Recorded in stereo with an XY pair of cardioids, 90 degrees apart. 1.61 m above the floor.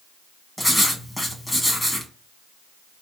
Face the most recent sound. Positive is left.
turn(degrees=5)